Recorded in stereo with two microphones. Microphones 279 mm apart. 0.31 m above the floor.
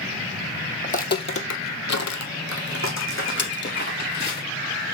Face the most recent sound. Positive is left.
turn(degrees=40)  # may be behind; listen again after turning